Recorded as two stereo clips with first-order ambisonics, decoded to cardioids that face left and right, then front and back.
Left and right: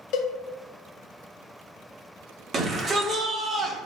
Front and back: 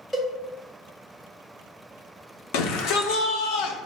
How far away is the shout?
About 0.7 m.